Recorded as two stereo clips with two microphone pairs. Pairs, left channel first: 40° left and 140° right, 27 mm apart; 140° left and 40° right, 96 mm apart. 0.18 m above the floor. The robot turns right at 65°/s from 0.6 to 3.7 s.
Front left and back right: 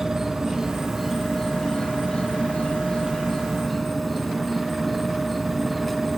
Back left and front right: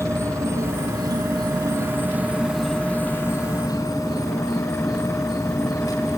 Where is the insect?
80° right, 2 m; by 6.2 s 120° left, 2 m.